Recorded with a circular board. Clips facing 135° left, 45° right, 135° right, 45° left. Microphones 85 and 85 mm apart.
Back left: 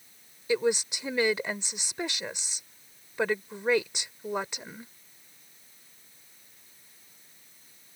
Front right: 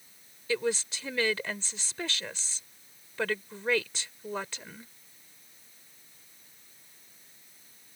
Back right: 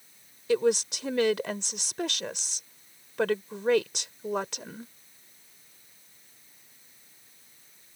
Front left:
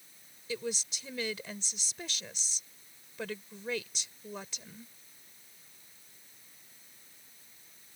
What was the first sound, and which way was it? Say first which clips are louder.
A woman speaking: back left 4 dB, back right 13 dB; 150° right.